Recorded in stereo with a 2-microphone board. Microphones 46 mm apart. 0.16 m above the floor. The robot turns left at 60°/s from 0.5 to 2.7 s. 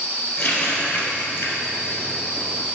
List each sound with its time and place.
0.4 s a running tap: 15° left (ahead or behind), 1.7 m; by 2.1 s 55° left (ahead or behind), 1.7 m